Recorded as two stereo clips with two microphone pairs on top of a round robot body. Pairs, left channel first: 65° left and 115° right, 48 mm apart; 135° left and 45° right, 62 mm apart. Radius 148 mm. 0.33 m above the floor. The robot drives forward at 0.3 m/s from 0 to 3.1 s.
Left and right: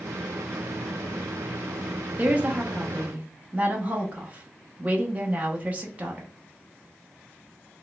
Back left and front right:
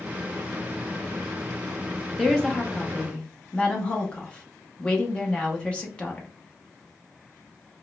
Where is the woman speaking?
140° right, 0.9 m; by 6.3 s 155° right, 1.0 m.